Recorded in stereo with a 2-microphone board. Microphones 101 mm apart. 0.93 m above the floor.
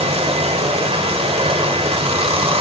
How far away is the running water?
About 1.2 m.